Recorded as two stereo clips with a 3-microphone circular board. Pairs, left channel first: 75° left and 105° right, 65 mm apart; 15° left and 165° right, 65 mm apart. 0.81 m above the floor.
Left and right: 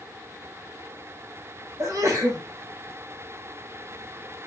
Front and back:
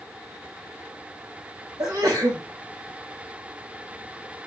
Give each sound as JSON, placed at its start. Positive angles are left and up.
{"t": 1.8, "sound": "a sneeze", "azimuth_deg": -150, "distance_m": 5.0}